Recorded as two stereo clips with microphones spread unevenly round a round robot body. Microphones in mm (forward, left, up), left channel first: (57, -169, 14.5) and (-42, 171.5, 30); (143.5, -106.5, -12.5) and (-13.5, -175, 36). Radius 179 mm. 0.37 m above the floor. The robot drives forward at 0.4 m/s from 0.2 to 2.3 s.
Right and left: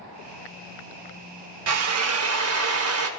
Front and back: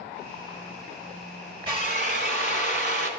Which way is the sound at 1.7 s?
130° left.